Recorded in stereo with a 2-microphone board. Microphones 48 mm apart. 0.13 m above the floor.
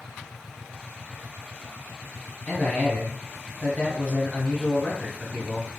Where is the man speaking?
20° left (ahead or behind), 1.2 m.